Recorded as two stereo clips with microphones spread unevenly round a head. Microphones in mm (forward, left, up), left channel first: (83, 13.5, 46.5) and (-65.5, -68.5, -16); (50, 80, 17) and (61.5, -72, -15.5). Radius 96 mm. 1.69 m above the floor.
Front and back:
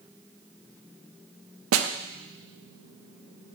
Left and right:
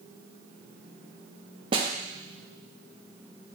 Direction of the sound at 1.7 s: 155° right.